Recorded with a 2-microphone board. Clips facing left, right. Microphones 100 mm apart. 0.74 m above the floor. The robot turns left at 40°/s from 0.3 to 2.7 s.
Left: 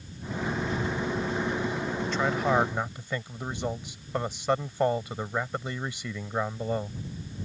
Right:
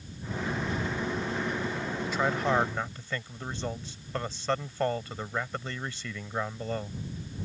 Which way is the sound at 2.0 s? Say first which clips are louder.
Left 1 dB; 10° right (ahead or behind).